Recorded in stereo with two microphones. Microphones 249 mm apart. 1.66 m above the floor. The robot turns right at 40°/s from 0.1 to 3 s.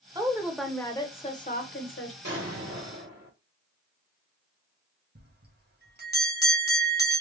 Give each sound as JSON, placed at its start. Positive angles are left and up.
{"t": 0.1, "sound": "a woman speaking", "azimuth_deg": -15, "distance_m": 1.0}
{"t": 2.2, "sound": "an explosion", "azimuth_deg": -110, "distance_m": 2.0}
{"t": 5.2, "sound": "a bell", "side_deg": -40, "distance_m": 1.2}